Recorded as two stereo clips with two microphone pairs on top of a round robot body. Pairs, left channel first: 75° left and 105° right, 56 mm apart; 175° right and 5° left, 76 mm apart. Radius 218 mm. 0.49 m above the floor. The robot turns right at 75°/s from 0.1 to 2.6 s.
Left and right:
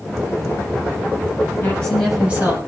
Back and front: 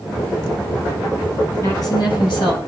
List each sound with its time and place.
1.6 s a woman speaking: 130° left, 7.5 m; by 2.6 s 155° right, 7.5 m